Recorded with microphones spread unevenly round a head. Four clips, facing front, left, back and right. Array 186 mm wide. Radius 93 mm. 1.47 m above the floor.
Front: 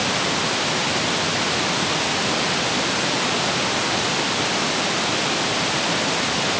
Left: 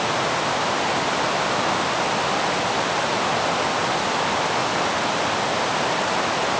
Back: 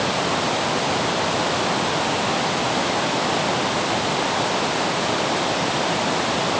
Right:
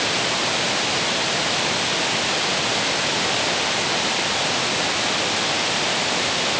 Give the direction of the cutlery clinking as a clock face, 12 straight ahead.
I don't hear cutlery clinking.